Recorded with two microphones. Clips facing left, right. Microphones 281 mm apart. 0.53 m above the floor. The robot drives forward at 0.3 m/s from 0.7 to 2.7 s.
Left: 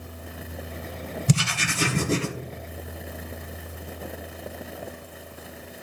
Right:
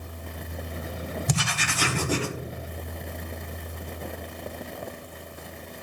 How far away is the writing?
About 0.9 m.